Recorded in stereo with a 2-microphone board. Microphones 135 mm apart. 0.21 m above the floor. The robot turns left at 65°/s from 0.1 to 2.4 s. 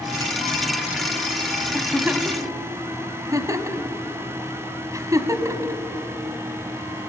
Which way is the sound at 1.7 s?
Centre (ahead or behind).